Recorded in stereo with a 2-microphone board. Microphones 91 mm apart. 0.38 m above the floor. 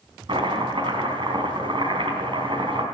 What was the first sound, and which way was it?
Chopping, 70° right (ahead or behind).